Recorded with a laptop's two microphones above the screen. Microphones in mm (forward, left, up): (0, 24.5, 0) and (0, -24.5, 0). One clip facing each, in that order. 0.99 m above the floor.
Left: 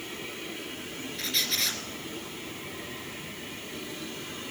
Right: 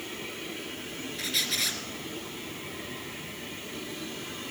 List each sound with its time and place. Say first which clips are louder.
1.2 s a squeak: even; 5° right (ahead or behind), 1.9 m